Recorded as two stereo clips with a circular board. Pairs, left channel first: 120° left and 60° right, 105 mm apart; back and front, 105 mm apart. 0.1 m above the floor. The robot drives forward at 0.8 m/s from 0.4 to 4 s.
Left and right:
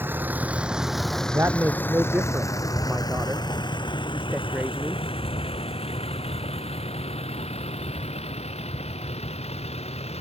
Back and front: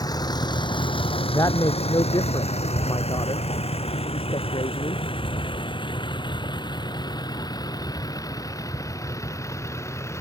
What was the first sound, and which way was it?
A vehicle, 130° right.